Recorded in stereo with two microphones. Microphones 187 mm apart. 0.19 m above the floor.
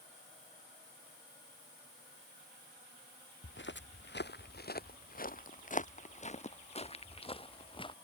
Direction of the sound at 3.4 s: 80° left.